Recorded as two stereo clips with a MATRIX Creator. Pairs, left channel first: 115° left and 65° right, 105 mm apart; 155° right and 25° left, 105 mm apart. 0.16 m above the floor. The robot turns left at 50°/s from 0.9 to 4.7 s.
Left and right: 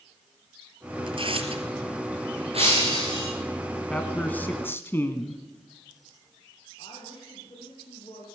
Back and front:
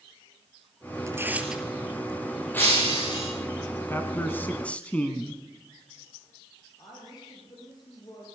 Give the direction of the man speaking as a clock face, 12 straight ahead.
6 o'clock.